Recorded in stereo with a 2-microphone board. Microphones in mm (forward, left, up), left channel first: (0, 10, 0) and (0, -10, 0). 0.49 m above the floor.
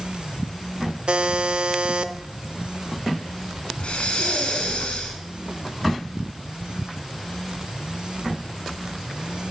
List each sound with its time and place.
1.1 s a buzzer: 55° right (ahead or behind), 0.9 m
3.8 s breathing: 65° left (ahead or behind), 3.5 m